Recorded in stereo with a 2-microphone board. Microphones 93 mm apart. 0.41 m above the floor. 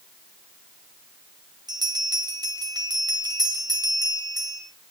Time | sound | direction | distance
1.7 | a bell | 50° right (ahead or behind) | 1.1 m